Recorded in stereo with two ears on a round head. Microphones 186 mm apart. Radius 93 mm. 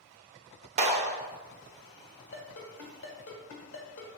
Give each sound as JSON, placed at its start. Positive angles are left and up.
{"t": 0.8, "sound": "a clap", "side_deg": -30, "distance_m": 0.6}
{"t": 2.3, "sound": "a ringtone", "side_deg": 65, "distance_m": 1.4}